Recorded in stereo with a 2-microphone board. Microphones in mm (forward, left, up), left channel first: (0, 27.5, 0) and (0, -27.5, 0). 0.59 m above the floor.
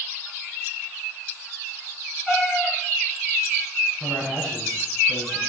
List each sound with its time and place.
2.3 s a cat meowing: 5° right (ahead or behind), 3.5 m
4.0 s a man speaking: 60° right (ahead or behind), 7 m